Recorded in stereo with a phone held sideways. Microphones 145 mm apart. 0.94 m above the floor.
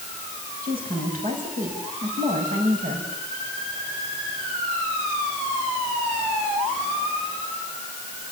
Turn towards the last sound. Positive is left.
turn(degrees=-75)  # may be behind; listen again after turning